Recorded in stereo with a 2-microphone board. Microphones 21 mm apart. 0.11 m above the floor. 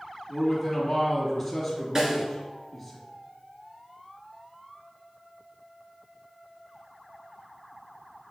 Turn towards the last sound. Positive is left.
turn(degrees=-30)  # may be behind; listen again after turning